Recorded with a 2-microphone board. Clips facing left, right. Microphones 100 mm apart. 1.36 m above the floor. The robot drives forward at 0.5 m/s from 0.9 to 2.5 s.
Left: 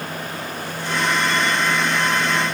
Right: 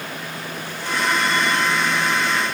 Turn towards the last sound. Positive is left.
No sound to turn to.